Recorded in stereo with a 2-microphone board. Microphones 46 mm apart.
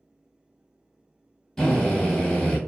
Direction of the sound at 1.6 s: 5° left (ahead or behind).